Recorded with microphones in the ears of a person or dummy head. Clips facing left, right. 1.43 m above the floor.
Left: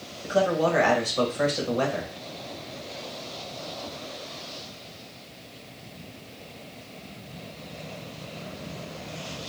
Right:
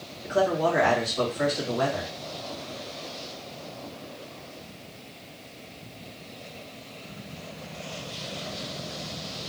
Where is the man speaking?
45° left (ahead or behind), 1.3 m.